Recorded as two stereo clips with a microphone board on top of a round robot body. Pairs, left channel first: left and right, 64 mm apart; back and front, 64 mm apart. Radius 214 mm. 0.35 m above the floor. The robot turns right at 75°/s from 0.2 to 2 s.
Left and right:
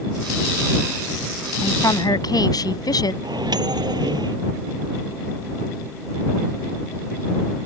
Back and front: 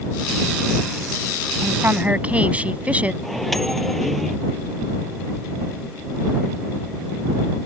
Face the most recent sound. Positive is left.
turn(degrees=-90)